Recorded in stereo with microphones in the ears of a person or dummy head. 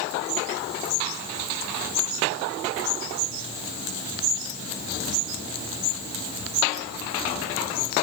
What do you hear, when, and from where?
Only background noise.